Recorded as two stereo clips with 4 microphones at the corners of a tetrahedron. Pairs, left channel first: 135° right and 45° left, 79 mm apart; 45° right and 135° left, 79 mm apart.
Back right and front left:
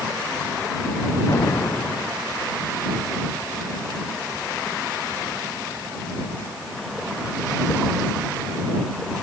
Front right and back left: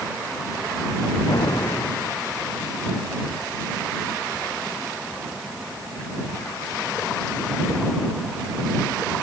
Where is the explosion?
85° right.